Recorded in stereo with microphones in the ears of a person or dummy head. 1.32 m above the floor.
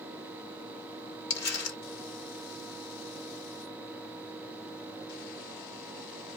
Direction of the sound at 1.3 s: 65° left (ahead or behind).